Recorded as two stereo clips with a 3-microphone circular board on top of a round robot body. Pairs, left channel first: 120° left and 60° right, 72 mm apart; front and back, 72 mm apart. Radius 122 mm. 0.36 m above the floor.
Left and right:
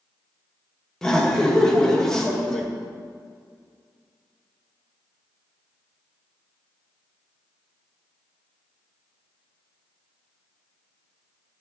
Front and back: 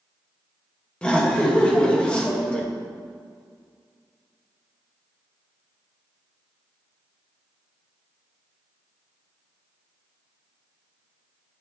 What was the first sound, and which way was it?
Laughter, 50° left.